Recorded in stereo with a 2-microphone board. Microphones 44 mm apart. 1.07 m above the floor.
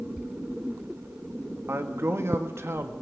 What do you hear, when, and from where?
1.7 s a man speaking: 75° right (ahead or behind), 2 m